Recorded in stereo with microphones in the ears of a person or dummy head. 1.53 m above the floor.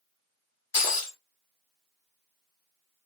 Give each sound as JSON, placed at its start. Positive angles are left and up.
{"t": 0.7, "sound": "breaking glass", "side_deg": 25, "distance_m": 1.7}